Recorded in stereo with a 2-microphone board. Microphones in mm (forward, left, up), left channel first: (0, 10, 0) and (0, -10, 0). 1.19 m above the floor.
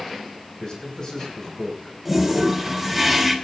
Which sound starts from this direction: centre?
A toilet flushing, at 2.0 s.